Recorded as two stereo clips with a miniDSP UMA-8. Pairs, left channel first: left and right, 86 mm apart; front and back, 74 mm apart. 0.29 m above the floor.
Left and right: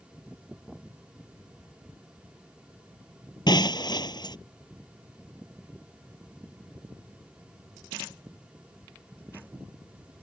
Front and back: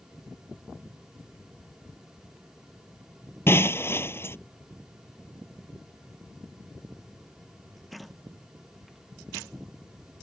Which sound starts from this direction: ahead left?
Breaking glass, at 3.5 s.